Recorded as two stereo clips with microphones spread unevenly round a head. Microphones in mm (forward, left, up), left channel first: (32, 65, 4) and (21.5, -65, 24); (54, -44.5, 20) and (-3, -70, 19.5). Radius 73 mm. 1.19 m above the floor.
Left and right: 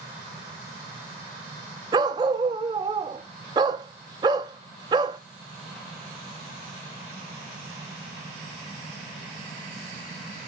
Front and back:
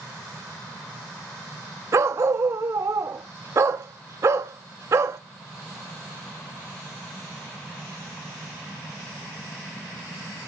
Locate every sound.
1.9 s a dog barking: 135° right, 0.7 m